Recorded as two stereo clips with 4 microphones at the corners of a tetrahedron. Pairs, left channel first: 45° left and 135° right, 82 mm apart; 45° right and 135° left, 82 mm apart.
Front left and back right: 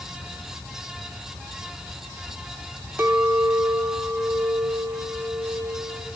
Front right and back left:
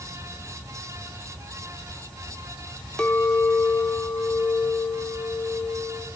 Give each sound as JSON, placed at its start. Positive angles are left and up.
{"t": 3.0, "sound": "a clink", "azimuth_deg": -115, "distance_m": 0.8}